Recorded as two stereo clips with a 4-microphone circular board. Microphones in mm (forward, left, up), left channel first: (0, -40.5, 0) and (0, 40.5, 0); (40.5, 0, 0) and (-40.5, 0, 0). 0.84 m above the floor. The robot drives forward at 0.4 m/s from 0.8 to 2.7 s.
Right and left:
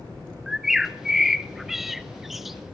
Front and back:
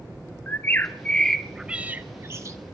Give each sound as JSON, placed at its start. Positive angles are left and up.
{"t": 0.5, "sound": "a bird", "azimuth_deg": 5, "distance_m": 0.6}